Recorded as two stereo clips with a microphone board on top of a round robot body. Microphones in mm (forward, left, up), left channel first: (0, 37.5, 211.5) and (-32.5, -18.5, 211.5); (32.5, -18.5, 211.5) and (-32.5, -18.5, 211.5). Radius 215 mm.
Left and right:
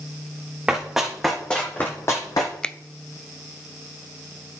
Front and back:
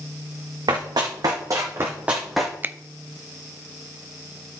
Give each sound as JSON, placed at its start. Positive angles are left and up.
{"t": 0.7, "sound": "running footsteps", "azimuth_deg": 160, "distance_m": 2.0}
{"t": 2.6, "sound": "a finger snap", "azimuth_deg": 130, "distance_m": 0.6}